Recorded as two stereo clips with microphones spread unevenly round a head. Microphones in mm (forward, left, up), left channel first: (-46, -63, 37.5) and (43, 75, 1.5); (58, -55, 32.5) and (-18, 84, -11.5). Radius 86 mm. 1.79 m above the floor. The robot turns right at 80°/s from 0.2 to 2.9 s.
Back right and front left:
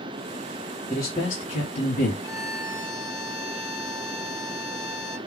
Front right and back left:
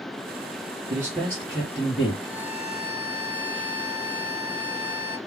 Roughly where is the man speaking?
Behind.